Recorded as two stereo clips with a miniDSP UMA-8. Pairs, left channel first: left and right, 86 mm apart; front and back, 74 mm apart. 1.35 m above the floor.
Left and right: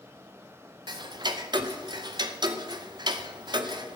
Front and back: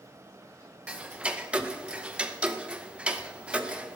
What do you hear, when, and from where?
0.9 s ticking: 105° right, 0.7 m